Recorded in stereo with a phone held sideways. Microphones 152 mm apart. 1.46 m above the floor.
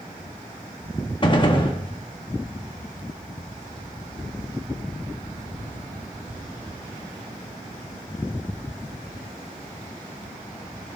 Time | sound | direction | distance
1.2 | a gunshot | 35° left (ahead or behind) | 1.5 m